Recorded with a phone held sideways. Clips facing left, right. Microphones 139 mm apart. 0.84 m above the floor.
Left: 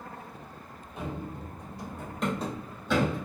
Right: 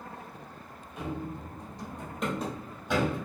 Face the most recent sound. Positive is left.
turn(degrees=-20)  # may be behind; listen again after turning